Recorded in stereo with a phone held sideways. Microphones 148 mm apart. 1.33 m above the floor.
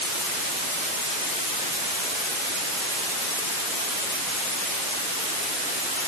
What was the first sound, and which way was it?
Only background noise.